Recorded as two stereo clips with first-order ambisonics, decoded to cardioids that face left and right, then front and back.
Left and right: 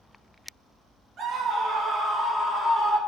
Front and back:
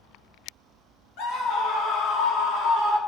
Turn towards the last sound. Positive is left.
turn(degrees=10)